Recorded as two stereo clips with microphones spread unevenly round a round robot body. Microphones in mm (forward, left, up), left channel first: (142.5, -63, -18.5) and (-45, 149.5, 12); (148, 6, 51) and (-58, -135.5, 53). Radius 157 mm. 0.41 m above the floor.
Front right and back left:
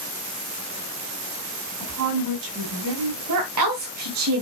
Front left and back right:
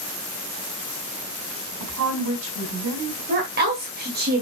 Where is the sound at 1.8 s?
175° left, 4 m.